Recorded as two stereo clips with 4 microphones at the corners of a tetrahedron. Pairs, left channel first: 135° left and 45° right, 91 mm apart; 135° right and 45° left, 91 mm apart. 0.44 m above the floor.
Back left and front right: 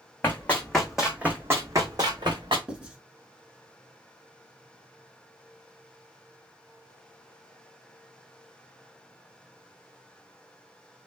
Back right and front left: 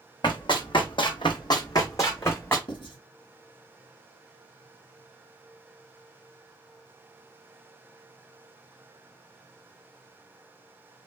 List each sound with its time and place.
0.2 s running footsteps: 160° right, 1.2 m; by 2.6 s 70° right, 1.5 m
2.7 s writing: 125° right, 1.3 m